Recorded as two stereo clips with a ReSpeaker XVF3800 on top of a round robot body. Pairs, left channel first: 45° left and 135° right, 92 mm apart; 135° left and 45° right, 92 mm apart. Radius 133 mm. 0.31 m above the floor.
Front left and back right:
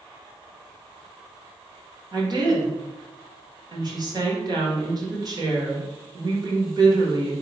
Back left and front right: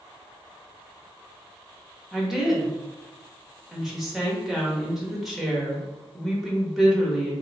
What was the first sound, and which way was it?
A woman speaking, 130° right.